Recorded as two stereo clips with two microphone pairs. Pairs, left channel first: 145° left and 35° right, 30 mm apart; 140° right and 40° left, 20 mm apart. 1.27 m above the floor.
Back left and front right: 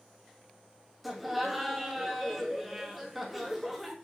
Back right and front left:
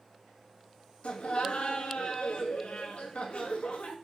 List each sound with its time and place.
1.0 s laughter: 120° right, 1.9 m